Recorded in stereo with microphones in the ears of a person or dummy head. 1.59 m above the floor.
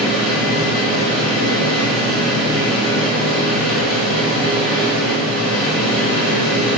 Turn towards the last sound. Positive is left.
turn(degrees=5)  # may be behind; listen again after turning